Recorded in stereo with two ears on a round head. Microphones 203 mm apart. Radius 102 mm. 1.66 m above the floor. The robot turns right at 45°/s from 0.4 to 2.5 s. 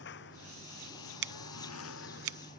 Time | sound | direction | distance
0.0 | a lawn mower | 50° left (ahead or behind) | ?
1.2 | scissors | 50° right (ahead or behind) | ?